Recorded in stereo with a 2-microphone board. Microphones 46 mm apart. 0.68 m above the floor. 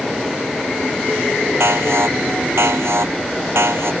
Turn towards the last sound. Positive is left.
turn(degrees=-65)  # may be behind; listen again after turning